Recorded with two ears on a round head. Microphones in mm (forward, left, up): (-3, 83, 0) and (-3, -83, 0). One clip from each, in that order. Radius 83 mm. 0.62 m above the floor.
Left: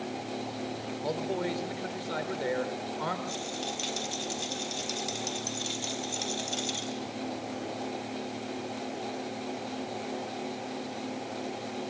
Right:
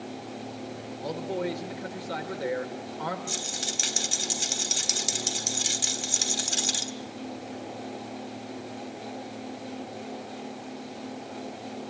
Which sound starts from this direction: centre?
A man speaking, at 1.0 s.